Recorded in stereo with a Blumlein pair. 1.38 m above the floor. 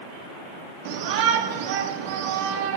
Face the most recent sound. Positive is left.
turn(degrees=-50)